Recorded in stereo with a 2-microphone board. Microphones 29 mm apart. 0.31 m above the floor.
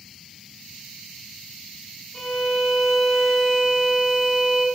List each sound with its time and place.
2.1 s a violin: 5° left (ahead or behind), 1.7 m